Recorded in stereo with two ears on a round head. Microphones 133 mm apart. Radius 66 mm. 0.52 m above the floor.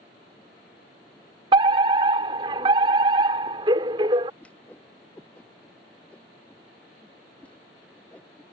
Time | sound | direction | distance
1.5 | a fire alarm | 30° right (ahead or behind) | ?
4.4 | a whoosh | 10° left (ahead or behind) | ?